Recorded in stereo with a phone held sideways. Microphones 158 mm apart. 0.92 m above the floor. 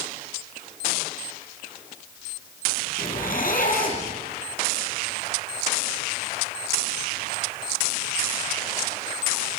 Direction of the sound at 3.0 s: 60° left (ahead or behind).